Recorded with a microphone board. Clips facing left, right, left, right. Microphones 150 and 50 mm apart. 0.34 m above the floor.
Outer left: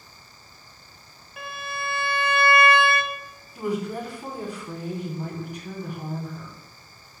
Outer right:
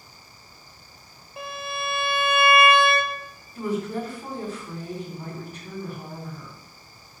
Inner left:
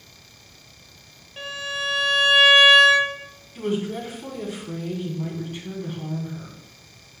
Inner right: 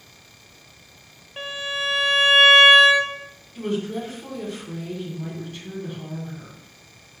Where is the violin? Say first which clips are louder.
Outer right 2 dB, inner right 1 dB; 30° right (ahead or behind), 1.1 m.